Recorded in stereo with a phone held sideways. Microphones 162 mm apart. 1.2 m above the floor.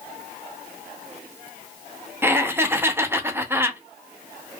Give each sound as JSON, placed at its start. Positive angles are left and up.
{"t": 2.2, "sound": "laughter", "side_deg": -15, "distance_m": 0.6}